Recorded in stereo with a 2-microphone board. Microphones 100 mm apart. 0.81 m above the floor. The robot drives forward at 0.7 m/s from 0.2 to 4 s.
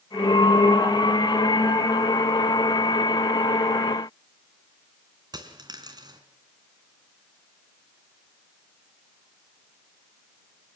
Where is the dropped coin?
45° right (ahead or behind), 2.5 m.